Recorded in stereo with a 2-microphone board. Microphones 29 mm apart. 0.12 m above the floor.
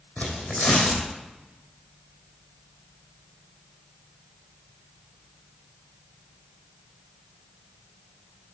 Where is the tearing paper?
55° left (ahead or behind), 2.5 m.